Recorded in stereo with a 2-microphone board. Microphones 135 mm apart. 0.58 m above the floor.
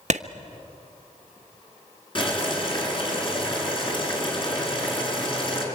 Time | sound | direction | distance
0.1 | a clap | 60° right (ahead or behind) | 1.1 m
2.1 | boiling | 40° left (ahead or behind) | 6.5 m